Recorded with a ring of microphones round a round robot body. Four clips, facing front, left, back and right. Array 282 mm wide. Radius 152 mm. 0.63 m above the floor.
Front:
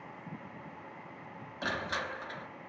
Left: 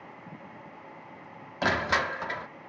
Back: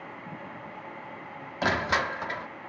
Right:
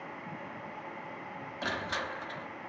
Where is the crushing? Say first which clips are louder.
Left 9 dB, back 9 dB; 135° left, 1.3 m.